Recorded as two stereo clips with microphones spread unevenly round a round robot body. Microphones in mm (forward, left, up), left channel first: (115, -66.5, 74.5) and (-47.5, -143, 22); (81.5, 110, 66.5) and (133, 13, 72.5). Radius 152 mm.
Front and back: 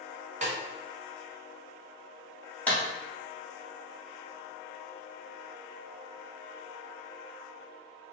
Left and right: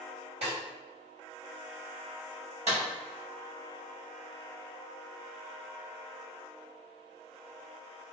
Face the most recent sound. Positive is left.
turn(degrees=-60)